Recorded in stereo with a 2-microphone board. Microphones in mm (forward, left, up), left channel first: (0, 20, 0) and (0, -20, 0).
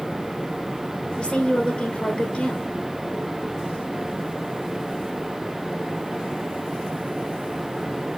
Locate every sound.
1.2 s a woman speaking: 15° left (ahead or behind), 1.3 m